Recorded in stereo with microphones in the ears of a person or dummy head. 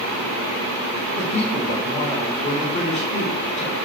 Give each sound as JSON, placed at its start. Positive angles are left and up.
{"t": 1.2, "sound": "a woman speaking", "side_deg": 35, "distance_m": 0.8}